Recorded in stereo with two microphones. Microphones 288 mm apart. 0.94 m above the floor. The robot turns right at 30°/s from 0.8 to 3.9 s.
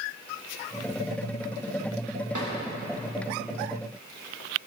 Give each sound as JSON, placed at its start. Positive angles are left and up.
{"t": 2.3, "sound": "a drawer", "side_deg": -80, "distance_m": 2.0}